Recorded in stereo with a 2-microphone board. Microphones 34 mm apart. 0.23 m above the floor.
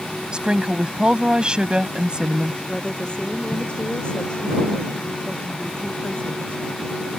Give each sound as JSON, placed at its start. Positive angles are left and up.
{"t": 0.3, "sound": "a woman speaking", "side_deg": -30}
{"t": 2.7, "sound": "a woman speaking", "side_deg": 30}